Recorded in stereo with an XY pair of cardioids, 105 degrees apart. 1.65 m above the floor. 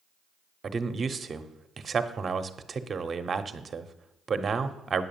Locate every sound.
0.6 s a man speaking: 35° right, 1.0 m